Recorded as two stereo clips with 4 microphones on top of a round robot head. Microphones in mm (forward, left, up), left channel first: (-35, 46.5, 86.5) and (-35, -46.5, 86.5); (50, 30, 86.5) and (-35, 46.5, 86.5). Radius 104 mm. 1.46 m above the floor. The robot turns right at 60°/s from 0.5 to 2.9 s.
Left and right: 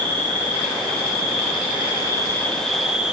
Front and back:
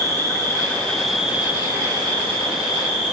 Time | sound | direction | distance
0.0 | an insect | 45° left | 2.5 m